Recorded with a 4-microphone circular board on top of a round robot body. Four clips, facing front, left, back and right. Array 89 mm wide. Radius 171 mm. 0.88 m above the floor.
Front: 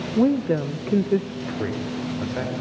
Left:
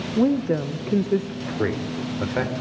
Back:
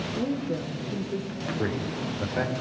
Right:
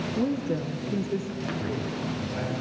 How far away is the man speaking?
About 4.5 m.